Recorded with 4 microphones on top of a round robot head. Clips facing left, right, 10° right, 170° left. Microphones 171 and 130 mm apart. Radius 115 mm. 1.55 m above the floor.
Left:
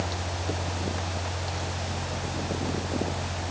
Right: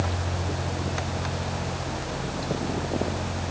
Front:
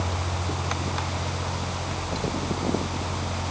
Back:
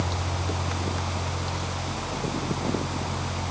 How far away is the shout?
I don't hear a shout.